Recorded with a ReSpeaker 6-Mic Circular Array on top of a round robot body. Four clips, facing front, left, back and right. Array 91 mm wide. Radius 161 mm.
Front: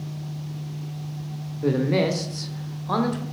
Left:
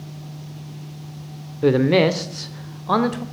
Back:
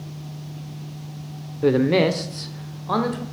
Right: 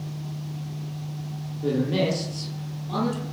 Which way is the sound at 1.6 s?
120° left.